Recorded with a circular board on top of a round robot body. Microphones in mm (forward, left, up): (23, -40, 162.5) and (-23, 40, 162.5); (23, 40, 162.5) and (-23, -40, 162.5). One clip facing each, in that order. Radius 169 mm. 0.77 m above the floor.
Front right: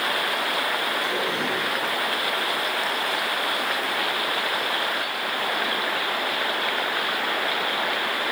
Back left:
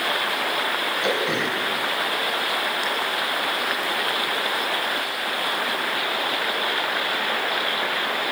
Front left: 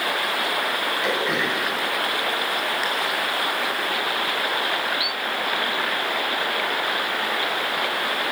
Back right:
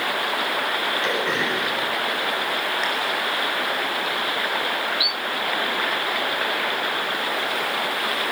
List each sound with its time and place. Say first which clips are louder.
1.0 s throat clearing: back left 2 dB, front left 1 dB; 145° left, 5 m